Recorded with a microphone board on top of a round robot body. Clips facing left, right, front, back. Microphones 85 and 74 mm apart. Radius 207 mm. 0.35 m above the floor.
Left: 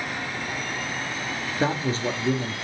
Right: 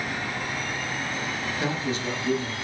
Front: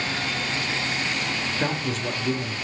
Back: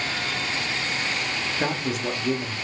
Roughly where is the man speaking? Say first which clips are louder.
Left 5 dB, back 2 dB; left.